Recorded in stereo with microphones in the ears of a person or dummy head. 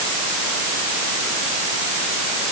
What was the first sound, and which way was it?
Only background noise.